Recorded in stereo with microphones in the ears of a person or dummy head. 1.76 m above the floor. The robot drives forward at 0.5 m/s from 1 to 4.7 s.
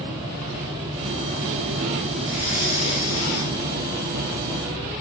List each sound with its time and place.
2.2 s breathing: 45° right (ahead or behind), 6 m; by 3.6 s 40° right (ahead or behind), 6.5 m